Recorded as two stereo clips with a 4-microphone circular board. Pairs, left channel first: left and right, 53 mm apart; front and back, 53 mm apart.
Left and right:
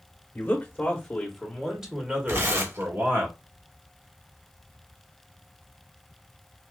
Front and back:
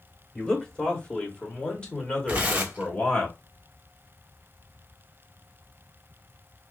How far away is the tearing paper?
About 0.9 m.